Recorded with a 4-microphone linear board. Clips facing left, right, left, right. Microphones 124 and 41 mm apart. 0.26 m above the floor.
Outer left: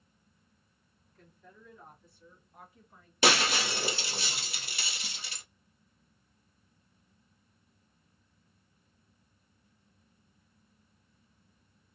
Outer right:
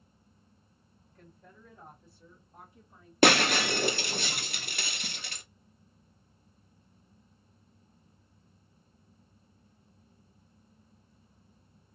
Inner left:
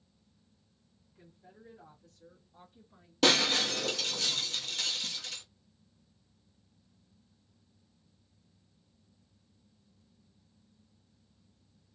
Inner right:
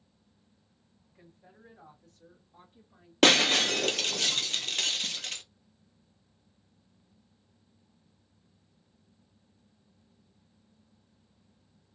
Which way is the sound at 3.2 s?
55° right (ahead or behind).